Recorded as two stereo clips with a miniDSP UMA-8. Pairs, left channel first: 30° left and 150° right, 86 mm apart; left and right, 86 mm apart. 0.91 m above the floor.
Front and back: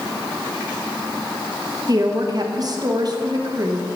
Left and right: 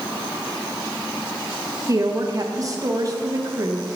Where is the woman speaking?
125° right, 1.1 m.